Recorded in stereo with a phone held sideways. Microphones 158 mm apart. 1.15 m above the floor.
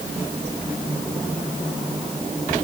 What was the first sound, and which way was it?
Only background noise.